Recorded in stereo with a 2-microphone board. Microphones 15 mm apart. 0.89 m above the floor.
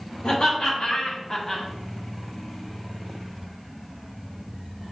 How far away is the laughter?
About 1.7 m.